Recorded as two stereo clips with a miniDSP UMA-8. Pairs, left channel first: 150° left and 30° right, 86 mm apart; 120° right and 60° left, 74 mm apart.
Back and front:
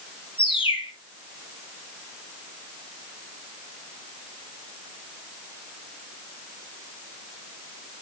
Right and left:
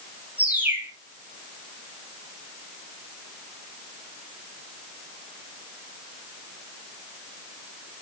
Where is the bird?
130° left, 3 m.